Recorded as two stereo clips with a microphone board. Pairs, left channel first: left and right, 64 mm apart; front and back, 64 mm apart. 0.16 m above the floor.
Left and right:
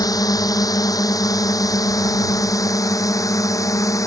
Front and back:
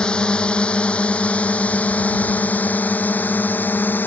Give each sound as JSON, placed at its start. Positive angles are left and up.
{"t": 0.0, "sound": "a drone", "azimuth_deg": 75}